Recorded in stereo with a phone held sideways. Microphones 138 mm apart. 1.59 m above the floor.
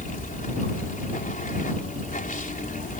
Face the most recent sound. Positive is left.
turn(degrees=75)  # may be behind; listen again after turning